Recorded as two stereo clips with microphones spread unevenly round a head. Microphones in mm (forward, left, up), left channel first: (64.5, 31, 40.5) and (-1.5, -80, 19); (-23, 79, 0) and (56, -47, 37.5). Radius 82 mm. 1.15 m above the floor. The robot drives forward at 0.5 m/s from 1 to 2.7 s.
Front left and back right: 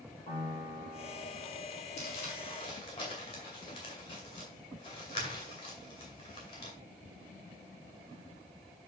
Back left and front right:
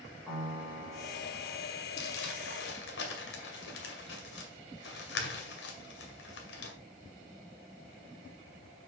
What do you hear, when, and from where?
0.3 s a piano: 20° left, 5.5 m
2.0 s crumpling: 110° left, 2 m; by 6.7 s 120° left, 2 m